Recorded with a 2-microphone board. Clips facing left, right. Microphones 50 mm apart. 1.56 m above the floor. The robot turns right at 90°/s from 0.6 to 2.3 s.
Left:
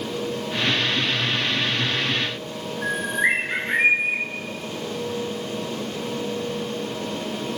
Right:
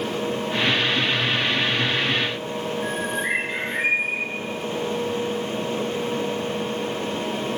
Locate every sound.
2.8 s a bird: 70° left (ahead or behind), 5.5 m